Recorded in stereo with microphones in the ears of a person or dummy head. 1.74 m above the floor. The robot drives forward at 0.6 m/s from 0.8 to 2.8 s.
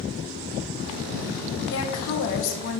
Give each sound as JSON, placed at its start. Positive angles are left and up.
{"t": 1.7, "sound": "a woman speaking", "side_deg": 75, "distance_m": 1.5}